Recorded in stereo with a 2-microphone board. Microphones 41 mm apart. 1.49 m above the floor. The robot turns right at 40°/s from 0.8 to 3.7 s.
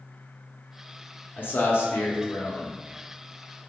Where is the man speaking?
55° left, 0.7 m; by 2.7 s 110° left, 0.7 m.